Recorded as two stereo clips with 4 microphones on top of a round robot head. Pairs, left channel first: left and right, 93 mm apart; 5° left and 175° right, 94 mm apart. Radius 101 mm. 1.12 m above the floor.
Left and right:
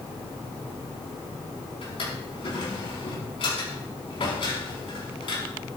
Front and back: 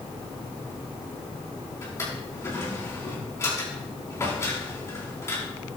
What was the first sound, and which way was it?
A drawer, 70° left.